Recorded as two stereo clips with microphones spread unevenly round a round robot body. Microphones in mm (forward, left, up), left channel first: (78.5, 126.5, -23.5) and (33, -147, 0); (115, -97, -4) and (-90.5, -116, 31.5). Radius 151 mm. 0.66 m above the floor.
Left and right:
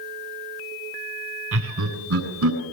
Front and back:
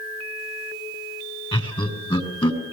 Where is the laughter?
60° right, 7 m.